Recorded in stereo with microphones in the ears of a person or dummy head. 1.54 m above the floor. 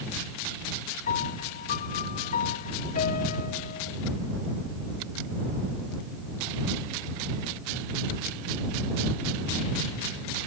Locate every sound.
1.1 s a piano: 45° left (ahead or behind)